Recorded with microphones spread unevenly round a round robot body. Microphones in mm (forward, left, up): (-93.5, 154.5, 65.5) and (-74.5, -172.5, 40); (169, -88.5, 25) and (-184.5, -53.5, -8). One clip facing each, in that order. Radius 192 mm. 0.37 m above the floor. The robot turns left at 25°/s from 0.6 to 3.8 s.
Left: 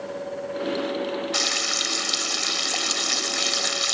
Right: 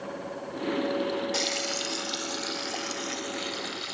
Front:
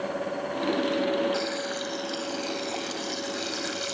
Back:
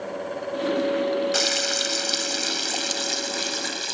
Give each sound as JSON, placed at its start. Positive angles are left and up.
{"t": 1.3, "sound": "frying", "azimuth_deg": 155}